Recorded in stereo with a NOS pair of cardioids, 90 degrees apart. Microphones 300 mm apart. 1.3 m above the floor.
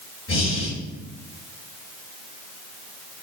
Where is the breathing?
45° left, 2.5 m.